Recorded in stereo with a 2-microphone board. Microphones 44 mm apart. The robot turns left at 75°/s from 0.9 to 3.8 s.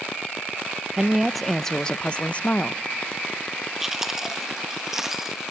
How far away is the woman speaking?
About 0.5 m.